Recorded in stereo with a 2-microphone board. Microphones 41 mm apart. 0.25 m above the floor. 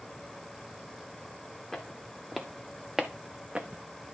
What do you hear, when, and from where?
1.7 s footsteps: 10° left (ahead or behind), 1.8 m; by 3.8 s 35° right (ahead or behind), 0.9 m